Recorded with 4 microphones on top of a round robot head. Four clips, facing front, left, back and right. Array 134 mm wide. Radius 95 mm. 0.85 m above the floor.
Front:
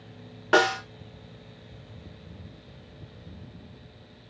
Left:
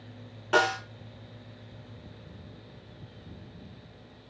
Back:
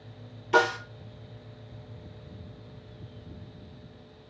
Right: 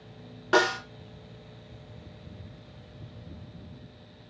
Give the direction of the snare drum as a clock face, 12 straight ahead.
1 o'clock.